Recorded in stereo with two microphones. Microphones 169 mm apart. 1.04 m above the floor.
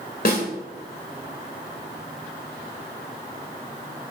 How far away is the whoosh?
I don't hear a whoosh.